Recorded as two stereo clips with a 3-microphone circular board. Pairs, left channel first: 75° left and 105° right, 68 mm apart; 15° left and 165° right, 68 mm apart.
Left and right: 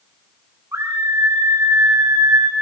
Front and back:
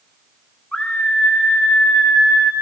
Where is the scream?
60° right, 3.5 m.